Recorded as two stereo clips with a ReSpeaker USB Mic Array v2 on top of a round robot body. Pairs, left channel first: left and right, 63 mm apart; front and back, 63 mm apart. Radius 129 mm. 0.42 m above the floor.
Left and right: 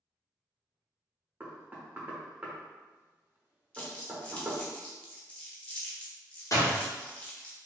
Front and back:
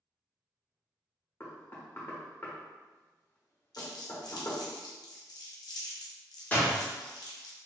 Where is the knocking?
40° right, 1.0 m.